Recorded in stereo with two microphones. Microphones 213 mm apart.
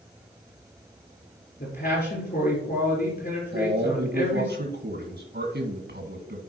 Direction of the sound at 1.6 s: 55° left (ahead or behind).